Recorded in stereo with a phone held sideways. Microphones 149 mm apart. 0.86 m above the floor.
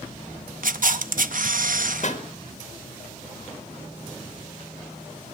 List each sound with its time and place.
0.6 s a camera shutter: 65° right (ahead or behind), 0.6 m
2.0 s a pop: 55° left (ahead or behind), 1.7 m